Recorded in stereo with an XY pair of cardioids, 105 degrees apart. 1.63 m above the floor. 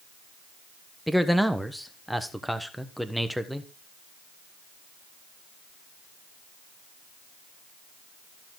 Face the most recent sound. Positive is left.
turn(degrees=0)